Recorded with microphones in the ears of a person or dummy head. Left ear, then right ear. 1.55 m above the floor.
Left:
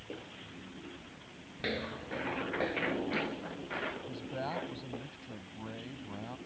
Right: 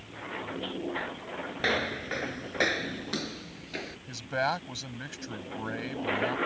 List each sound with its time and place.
1.6 s footsteps: 15° right (ahead or behind); by 4.0 s 30° right (ahead or behind)
4.1 s a man speaking: 60° right (ahead or behind)